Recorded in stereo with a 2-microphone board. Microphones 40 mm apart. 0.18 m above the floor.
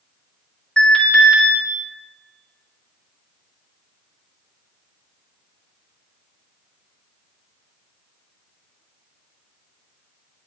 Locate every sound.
0.8 s an alarm: 15° left (ahead or behind), 2.5 m